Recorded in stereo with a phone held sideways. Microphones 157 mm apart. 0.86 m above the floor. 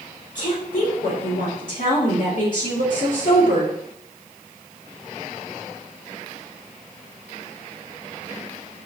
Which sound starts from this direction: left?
A woman speaking, at 0.3 s.